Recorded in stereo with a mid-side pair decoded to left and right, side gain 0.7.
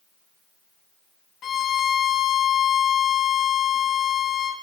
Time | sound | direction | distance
1.4 | a violin | 35° left | 1.7 m